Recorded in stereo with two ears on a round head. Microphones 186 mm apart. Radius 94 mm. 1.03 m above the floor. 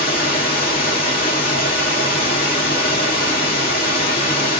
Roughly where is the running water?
Left.